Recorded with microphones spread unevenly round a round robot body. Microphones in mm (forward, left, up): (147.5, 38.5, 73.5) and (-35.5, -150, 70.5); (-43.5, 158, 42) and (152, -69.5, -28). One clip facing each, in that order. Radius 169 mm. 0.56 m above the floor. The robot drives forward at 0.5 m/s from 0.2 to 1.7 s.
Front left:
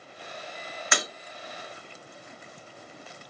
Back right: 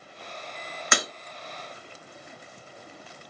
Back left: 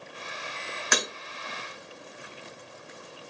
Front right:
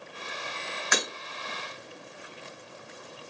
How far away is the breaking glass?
About 0.7 m.